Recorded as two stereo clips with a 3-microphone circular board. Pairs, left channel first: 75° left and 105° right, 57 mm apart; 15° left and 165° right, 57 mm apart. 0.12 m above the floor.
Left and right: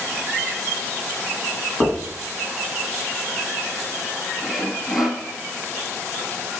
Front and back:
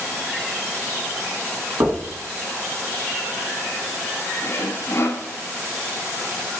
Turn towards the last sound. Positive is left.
turn(degrees=-20)